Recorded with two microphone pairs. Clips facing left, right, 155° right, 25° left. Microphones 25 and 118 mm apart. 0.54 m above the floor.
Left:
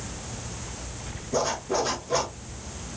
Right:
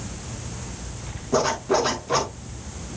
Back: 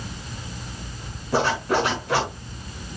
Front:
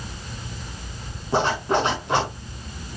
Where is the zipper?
45° right, 5 m.